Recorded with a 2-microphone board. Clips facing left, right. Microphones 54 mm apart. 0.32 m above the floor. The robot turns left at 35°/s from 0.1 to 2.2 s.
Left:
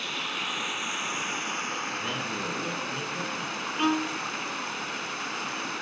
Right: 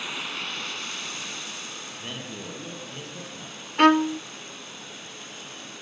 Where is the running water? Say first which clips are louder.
Left 1 dB; 175° right, 2 m; by 5.8 s 115° left, 2 m.